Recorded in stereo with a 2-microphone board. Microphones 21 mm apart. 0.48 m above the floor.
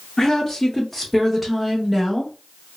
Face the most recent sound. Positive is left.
turn(degrees=-10)  # may be behind; listen again after turning